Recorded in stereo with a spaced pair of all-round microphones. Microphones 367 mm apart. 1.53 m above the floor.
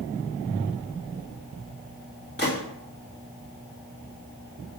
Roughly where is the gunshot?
Left.